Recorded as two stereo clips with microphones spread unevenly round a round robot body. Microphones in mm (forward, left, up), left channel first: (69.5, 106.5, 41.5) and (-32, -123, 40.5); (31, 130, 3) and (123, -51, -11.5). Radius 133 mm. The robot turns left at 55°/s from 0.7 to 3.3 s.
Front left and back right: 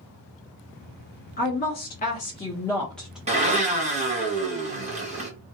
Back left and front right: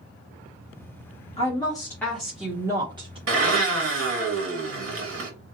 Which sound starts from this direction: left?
A woman speaking, at 1.4 s.